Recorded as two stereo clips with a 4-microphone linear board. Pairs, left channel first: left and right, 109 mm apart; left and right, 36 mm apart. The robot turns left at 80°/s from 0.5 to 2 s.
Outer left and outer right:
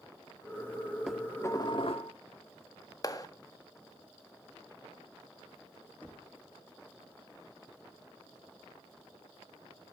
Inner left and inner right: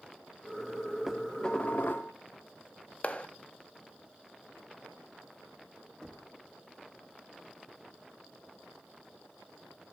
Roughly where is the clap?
Left.